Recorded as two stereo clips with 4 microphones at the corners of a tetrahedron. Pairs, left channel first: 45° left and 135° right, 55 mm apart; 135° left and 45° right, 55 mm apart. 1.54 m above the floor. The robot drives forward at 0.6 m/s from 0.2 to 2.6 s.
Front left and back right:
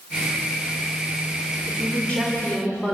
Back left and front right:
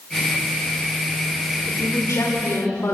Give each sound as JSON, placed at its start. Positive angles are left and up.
{"t": 1.7, "sound": "a woman speaking", "azimuth_deg": 110, "distance_m": 4.5}